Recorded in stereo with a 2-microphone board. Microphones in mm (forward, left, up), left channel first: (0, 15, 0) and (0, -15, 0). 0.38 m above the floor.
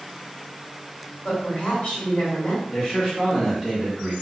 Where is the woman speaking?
50° left (ahead or behind), 1.9 m.